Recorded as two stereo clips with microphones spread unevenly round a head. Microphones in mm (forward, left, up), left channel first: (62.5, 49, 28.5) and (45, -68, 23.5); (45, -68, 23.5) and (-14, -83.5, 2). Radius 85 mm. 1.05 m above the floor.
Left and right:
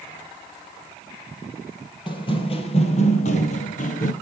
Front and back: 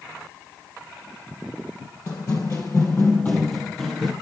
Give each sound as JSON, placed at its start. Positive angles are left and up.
{"t": 2.1, "sound": "running footsteps", "azimuth_deg": 40, "distance_m": 2.0}